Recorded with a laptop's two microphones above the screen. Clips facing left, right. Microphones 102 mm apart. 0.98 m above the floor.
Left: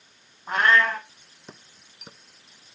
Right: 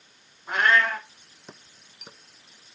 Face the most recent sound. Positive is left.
turn(degrees=45)  # may be behind; listen again after turning